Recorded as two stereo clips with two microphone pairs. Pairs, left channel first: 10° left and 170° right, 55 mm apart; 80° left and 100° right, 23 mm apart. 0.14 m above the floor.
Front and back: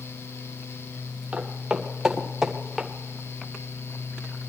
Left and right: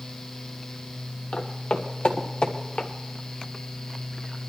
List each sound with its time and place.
1.3 s footsteps: 120° left, 2.5 m; by 2.9 s 100° left, 1.8 m